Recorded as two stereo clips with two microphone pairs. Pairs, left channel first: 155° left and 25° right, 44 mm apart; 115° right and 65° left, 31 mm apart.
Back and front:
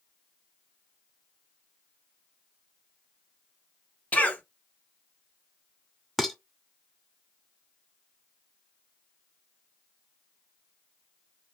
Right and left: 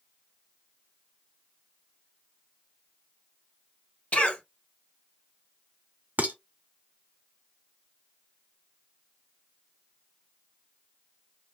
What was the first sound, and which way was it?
A cough, 150° right.